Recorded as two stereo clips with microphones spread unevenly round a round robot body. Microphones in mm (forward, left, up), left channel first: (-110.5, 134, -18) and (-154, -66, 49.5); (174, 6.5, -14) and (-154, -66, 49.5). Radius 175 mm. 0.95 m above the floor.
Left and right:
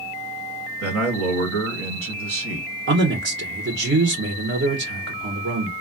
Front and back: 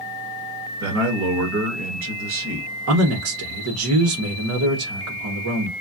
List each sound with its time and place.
0.8 s a man speaking: 110° right, 1.6 m
2.9 s a man speaking: 125° right, 1.0 m